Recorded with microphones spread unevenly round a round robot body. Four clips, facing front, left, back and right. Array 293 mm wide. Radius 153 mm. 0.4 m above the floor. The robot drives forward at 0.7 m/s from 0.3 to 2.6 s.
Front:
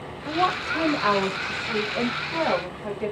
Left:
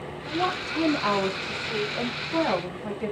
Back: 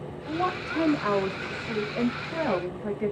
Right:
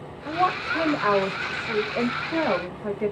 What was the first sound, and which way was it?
A woman speaking, 55° right.